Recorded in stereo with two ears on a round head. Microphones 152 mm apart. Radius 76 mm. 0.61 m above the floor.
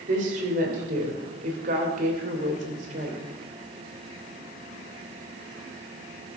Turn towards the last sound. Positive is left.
turn(degrees=-50)  # may be behind; listen again after turning